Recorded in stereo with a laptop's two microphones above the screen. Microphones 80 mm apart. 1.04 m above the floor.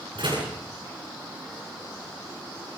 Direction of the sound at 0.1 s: 70° right (ahead or behind).